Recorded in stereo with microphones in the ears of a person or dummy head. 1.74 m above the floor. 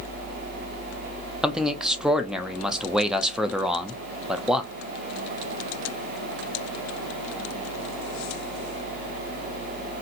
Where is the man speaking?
5° right (ahead or behind), 0.6 m.